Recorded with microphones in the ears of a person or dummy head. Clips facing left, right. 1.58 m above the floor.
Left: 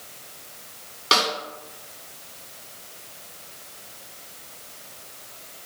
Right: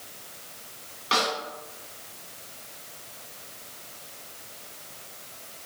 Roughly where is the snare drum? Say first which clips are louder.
Left 2 dB; left.